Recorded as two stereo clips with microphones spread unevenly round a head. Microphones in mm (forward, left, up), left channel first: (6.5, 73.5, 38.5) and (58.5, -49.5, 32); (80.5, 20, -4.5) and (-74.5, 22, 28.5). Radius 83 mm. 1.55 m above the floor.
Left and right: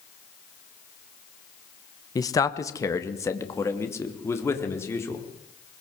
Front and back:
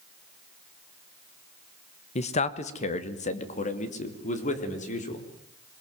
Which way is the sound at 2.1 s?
50° left.